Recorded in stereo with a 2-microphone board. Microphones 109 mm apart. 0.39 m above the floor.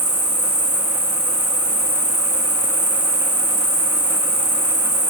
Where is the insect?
50° right (ahead or behind), 1.0 m.